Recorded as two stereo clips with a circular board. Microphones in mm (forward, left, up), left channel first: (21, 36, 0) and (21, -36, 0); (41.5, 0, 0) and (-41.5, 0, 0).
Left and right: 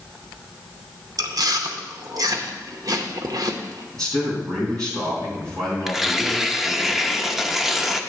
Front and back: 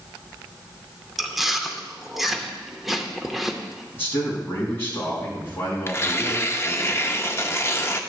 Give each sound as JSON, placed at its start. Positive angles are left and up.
{"t": 1.2, "sound": "chewing", "azimuth_deg": -90, "distance_m": 0.8}
{"t": 3.9, "sound": "a man speaking", "azimuth_deg": -60, "distance_m": 4.5}
{"t": 5.9, "sound": "tearing paper", "azimuth_deg": -5, "distance_m": 0.6}